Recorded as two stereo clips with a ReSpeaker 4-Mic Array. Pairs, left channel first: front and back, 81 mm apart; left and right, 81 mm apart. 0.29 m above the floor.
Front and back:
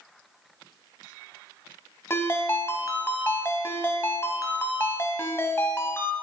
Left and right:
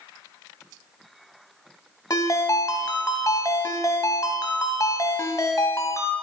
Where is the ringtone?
55° left, 1.1 m.